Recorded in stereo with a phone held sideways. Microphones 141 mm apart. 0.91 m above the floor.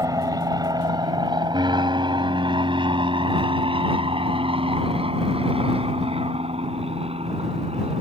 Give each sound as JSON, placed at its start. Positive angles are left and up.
{"t": 0.0, "sound": "an aircraft", "side_deg": -25}